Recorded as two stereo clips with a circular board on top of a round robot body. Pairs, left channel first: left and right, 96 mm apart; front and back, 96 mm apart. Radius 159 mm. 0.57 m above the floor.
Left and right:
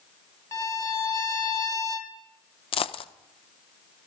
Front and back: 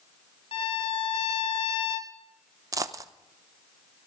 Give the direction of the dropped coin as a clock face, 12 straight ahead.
8 o'clock.